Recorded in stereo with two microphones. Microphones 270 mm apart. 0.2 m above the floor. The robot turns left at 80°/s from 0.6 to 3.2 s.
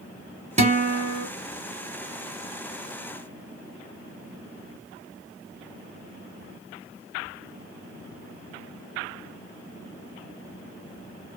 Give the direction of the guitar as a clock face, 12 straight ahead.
1 o'clock.